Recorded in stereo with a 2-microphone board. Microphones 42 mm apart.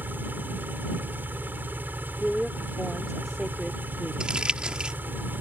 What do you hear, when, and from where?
0.0 s an engine running: 50° right (ahead or behind)
2.2 s a woman speaking: 5° left (ahead or behind)
4.2 s crumpling: 20° right (ahead or behind)